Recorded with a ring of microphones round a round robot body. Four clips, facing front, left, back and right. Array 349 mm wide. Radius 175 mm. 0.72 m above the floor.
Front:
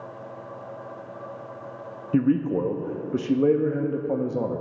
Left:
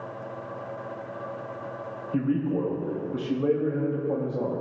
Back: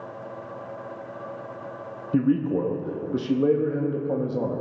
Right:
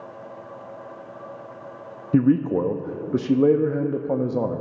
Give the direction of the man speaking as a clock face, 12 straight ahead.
3 o'clock.